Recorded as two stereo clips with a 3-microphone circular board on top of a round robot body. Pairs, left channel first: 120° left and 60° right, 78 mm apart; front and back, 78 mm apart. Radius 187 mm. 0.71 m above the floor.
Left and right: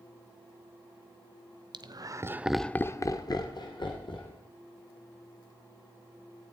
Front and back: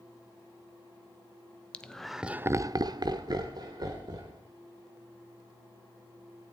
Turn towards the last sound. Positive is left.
turn(degrees=140)